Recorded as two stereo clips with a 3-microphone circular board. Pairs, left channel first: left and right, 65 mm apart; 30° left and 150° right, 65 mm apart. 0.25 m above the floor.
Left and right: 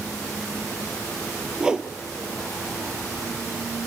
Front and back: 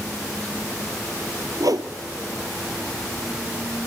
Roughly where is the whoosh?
Behind.